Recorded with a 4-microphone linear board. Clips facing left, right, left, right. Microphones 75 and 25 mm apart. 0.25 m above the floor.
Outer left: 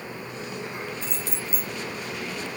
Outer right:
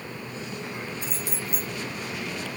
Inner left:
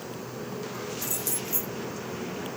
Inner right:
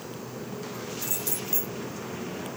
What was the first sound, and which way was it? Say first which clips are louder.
Keys jangling: even, even; 15° right (ahead or behind).